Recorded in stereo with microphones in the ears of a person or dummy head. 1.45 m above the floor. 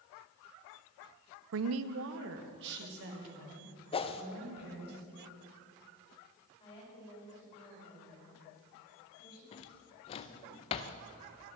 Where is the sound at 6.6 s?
30° left (ahead or behind), 7 m.